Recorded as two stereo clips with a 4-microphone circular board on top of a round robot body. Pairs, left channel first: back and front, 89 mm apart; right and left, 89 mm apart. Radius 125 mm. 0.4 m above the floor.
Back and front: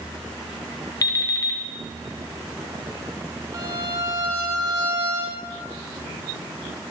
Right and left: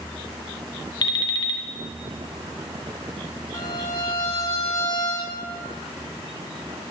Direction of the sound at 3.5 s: 40° right.